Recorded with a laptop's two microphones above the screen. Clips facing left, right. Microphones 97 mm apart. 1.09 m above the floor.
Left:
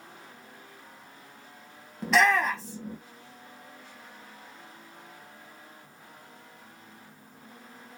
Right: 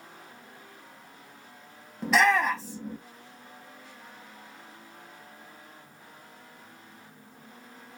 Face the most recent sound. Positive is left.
turn(degrees=0)  # may be behind; listen again after turning